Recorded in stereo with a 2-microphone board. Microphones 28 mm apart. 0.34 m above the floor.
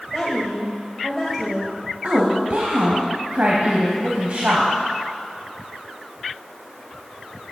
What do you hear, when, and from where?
0.1 s a woman speaking: centre (ahead or behind), 1.4 m
2.0 s a woman speaking: 55° right (ahead or behind), 1.7 m